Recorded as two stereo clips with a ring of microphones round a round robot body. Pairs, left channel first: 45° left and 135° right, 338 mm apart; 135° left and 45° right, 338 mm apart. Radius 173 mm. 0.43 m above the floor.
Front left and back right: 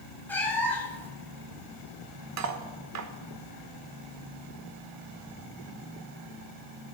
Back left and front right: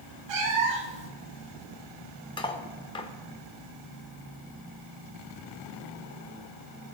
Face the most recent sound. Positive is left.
turn(degrees=-155)